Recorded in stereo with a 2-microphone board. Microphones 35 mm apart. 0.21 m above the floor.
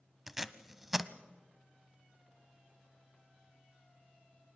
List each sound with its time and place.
0.3 s tape being pulled: 10° right (ahead or behind), 0.8 m